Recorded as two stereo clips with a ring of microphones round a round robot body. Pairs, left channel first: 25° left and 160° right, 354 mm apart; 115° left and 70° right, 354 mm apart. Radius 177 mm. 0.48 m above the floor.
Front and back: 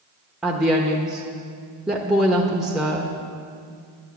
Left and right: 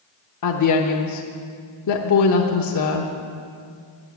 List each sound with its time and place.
0.4 s a woman speaking: 115° left, 1.0 m